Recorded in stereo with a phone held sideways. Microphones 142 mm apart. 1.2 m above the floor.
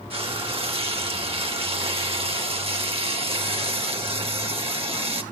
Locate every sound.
0.1 s frying: 40° right (ahead or behind), 2 m